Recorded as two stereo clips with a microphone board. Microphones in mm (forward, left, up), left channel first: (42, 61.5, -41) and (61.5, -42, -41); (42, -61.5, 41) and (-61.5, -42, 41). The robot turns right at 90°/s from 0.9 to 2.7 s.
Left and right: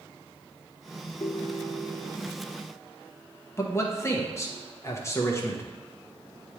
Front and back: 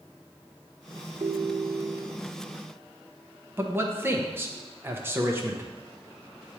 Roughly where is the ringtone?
Behind left.